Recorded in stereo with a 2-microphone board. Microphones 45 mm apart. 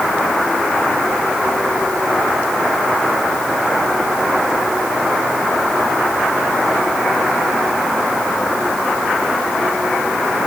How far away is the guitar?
I don't hear a guitar.